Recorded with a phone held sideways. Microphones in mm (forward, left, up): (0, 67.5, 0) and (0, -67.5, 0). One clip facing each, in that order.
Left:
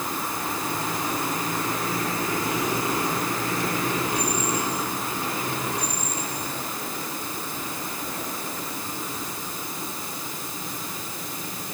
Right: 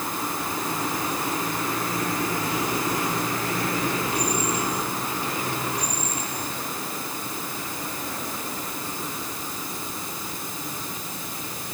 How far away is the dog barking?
No dog barking in this recording.